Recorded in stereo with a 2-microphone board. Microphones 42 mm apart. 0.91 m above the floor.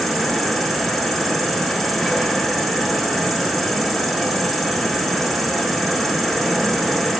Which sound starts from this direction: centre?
An insect, at 0.0 s.